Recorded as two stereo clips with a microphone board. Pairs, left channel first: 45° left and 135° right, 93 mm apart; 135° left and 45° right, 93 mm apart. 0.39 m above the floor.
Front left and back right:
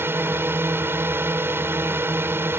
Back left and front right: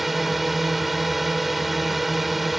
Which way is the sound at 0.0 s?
130° right.